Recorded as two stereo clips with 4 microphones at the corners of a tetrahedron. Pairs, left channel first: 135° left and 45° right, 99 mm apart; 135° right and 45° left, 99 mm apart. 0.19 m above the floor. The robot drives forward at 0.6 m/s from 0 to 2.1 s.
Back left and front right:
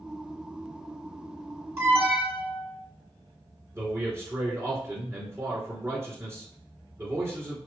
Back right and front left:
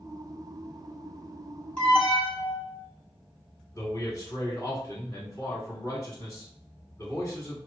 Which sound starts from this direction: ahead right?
An alarm, at 1.8 s.